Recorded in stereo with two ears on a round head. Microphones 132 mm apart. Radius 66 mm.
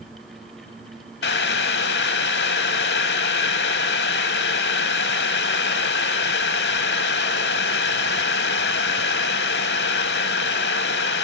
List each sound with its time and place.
1.2 s boiling: 85° left, 1.0 m